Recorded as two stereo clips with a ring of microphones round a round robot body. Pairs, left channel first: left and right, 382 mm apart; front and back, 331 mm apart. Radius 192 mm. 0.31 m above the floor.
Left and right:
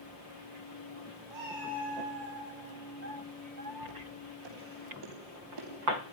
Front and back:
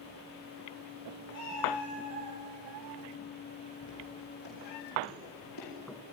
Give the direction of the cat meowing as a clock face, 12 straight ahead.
4 o'clock.